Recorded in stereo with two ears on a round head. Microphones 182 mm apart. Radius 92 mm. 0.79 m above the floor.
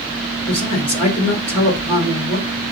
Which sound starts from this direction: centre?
A man speaking, at 0.5 s.